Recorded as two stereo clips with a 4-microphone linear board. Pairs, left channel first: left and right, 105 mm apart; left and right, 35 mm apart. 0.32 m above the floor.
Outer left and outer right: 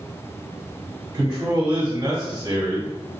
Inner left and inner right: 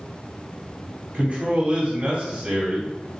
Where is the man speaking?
35° right (ahead or behind), 1.2 m.